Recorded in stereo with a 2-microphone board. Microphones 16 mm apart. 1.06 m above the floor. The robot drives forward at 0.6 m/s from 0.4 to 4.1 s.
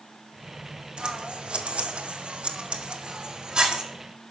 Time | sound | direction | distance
1.0 | scissors | 55° right (ahead or behind) | 1.0 m